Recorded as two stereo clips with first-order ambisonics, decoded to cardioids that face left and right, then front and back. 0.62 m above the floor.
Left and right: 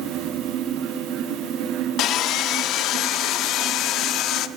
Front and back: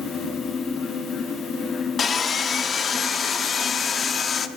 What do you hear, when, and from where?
2.0 s sawing: 60° left, 0.6 m